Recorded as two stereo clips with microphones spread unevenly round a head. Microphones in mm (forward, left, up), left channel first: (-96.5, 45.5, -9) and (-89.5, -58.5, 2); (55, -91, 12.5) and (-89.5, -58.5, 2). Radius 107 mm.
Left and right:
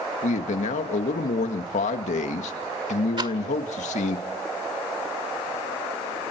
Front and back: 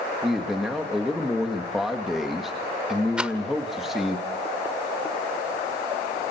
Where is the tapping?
I don't hear tapping.